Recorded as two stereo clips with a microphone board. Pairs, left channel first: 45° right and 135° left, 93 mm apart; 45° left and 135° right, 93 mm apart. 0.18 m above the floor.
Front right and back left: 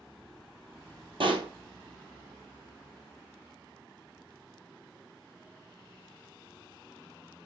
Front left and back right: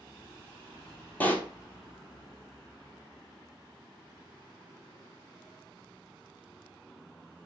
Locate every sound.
1.2 s a pop: 115° left, 0.8 m